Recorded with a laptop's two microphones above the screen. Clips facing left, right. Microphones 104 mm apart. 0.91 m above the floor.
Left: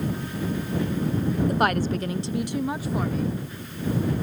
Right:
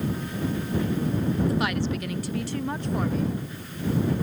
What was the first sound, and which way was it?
A woman speaking, 50° left (ahead or behind).